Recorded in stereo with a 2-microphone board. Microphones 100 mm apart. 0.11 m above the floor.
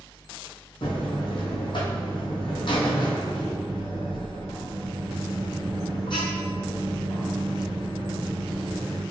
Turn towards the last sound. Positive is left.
turn(degrees=55)  # may be behind; listen again after turning